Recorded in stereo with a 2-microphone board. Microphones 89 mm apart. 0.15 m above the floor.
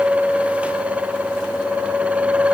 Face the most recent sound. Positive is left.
No sound to turn to.